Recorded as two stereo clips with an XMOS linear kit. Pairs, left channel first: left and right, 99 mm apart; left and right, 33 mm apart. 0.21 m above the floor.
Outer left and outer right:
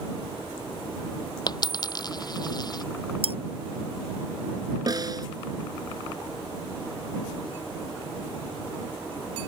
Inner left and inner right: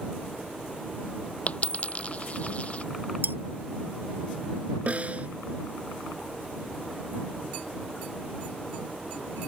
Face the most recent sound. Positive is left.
turn(degrees=-45)  # may be behind; listen again after turning